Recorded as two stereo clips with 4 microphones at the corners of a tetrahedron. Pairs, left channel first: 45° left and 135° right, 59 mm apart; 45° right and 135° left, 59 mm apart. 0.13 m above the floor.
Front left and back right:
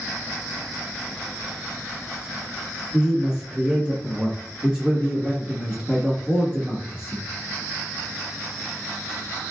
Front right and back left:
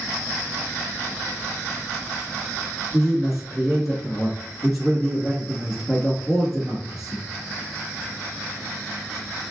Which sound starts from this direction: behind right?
A man speaking, at 2.9 s.